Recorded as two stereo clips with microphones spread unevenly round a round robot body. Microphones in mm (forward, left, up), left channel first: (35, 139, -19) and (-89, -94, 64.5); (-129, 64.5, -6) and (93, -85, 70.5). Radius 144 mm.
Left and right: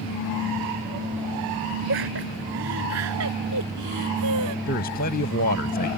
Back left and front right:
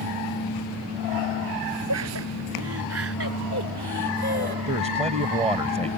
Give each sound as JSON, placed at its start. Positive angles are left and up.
{"t": 1.9, "sound": "laughter", "azimuth_deg": -70}
{"t": 4.7, "sound": "a man speaking", "azimuth_deg": 40}